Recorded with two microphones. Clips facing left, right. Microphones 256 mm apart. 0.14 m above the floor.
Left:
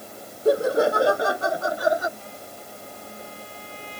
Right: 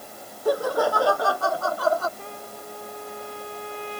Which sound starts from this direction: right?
A trumpet, at 2.2 s.